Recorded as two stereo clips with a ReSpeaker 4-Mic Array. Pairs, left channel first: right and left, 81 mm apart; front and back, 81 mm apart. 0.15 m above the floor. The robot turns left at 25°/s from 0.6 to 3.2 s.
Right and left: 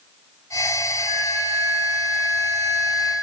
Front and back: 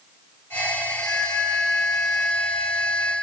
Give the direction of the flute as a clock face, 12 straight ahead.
9 o'clock.